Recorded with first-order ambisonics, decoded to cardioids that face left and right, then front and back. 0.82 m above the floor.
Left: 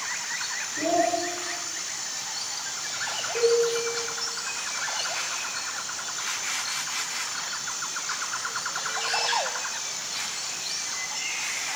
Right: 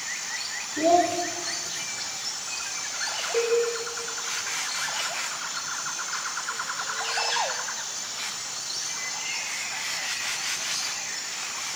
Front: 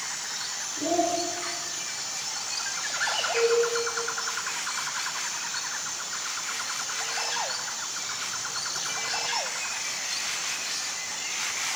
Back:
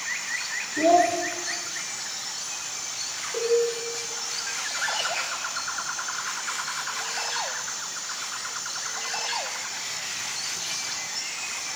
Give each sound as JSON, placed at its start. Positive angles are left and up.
{"t": 0.8, "sound": "a child speaking", "azimuth_deg": -130, "distance_m": 1.2}
{"t": 3.3, "sound": "a cowbell", "azimuth_deg": -125, "distance_m": 1.4}